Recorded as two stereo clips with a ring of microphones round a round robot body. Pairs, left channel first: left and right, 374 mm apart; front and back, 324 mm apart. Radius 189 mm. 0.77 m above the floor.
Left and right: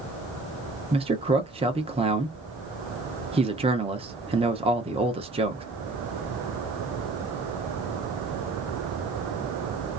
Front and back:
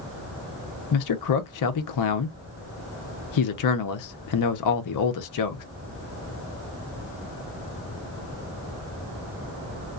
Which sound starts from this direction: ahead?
A man speaking, at 0.9 s.